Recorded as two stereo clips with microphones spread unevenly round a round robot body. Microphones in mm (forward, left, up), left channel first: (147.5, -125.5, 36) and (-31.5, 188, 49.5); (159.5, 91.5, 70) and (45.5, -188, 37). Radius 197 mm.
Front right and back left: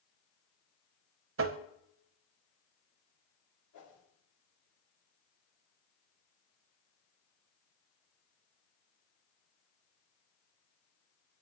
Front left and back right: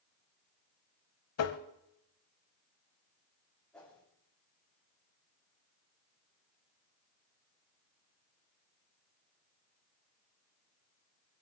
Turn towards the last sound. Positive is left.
turn(degrees=-20)